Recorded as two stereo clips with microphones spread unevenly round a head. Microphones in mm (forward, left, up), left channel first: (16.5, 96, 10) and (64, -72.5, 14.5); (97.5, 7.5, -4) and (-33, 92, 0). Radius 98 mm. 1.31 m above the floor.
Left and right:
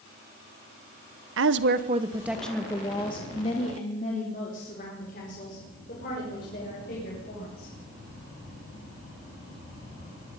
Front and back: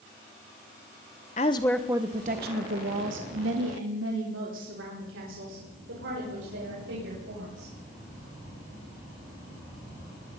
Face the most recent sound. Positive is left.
turn(degrees=155)